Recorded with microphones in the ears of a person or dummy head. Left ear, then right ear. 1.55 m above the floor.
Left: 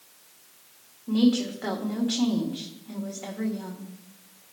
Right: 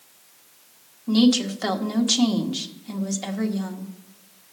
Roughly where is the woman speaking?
Right.